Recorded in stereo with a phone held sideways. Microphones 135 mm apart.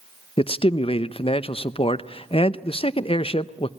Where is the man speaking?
45° left (ahead or behind), 0.7 m.